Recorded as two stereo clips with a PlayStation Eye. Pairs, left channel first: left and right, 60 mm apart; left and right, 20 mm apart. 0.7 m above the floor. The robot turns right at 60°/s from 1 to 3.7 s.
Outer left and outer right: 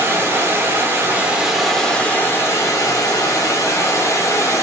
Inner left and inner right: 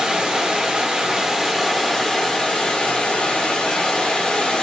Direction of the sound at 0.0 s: 40° right.